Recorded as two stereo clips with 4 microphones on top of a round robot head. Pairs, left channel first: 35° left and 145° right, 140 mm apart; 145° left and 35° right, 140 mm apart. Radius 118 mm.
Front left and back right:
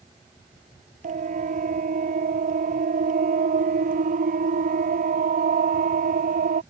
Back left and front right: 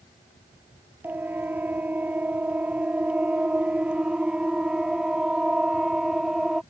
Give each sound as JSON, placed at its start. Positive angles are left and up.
{"t": 1.0, "sound": "a siren", "azimuth_deg": -110}